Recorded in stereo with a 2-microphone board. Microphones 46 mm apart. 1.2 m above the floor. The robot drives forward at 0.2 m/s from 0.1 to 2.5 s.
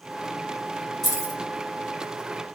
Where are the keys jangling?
5° left (ahead or behind), 1.4 m.